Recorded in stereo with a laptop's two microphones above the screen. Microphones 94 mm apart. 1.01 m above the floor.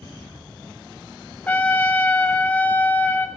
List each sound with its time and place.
1.5 s a trumpet: 20° left (ahead or behind), 0.7 m